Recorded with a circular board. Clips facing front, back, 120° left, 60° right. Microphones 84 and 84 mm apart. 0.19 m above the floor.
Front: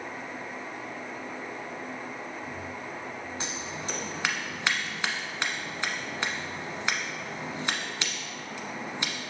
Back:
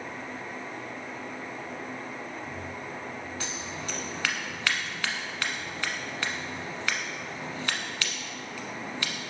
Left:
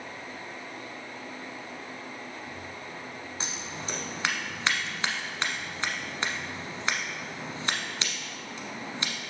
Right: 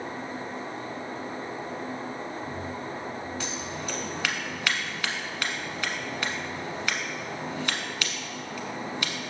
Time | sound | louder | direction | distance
3.4 | scissors | front 1 dB, right 4 dB | 60° left | 1.1 m